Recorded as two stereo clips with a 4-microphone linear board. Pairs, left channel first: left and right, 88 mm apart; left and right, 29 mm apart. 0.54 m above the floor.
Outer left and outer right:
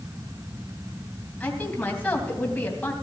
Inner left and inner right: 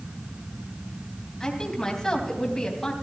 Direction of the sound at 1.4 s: 15° left (ahead or behind).